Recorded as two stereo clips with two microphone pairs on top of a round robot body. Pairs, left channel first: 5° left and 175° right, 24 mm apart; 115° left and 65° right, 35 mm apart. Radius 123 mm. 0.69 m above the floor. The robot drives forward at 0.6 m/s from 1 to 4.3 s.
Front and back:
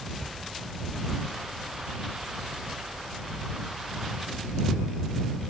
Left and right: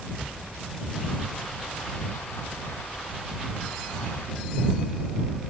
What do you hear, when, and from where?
0.2 s ticking: 100° left, 5 m